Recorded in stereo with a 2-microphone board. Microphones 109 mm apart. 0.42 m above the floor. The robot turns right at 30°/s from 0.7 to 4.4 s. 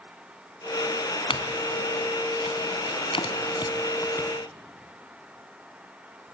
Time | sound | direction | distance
1.3 | a clink | 60° left (ahead or behind) | 1.8 m